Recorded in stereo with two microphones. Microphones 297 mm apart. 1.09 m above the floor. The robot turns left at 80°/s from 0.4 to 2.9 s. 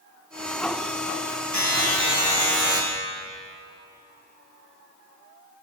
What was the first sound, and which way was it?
A buzzer, 85° left.